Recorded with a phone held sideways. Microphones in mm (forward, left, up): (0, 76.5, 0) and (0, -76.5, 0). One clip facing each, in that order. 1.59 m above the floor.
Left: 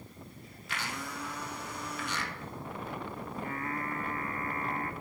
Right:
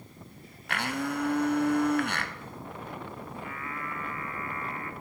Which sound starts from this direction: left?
Singing, at 3.4 s.